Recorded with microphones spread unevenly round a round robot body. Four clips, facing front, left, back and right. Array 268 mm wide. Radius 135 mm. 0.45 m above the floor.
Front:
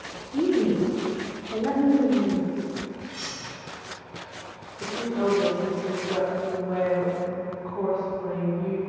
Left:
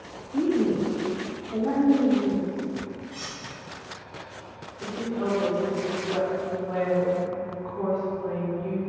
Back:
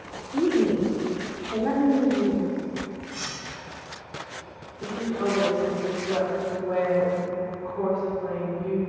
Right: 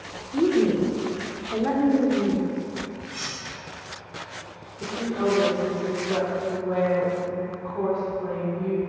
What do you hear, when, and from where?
0.3 s a woman speaking: 95° right, 0.8 m
3.1 s cutlery clinking: 110° right, 1.1 m
4.8 s a woman speaking: 80° right, 1.4 m